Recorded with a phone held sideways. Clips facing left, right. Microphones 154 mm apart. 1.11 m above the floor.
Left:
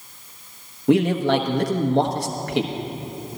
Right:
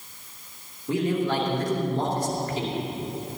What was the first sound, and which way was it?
A man speaking, 75° left (ahead or behind).